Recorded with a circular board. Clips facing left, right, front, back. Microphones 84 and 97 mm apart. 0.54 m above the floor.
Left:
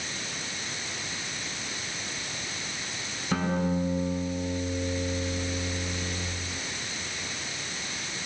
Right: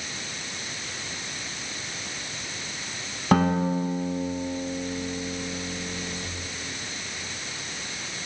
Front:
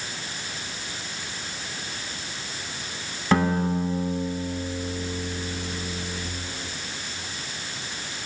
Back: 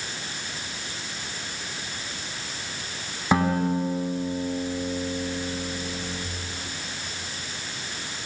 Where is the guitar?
100° right, 4 m.